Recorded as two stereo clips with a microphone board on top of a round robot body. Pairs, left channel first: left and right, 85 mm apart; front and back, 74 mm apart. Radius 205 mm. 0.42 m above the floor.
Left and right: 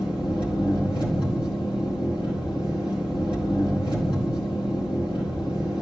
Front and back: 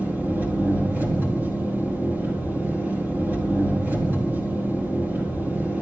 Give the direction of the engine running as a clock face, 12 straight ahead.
8 o'clock.